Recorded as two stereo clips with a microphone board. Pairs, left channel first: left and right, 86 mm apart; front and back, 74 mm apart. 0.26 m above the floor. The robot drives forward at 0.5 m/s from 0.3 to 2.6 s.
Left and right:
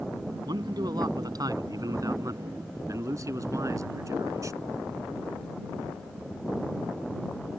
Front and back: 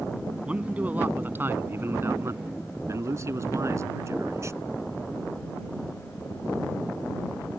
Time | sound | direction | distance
0.5 | a man speaking | 105° right | ?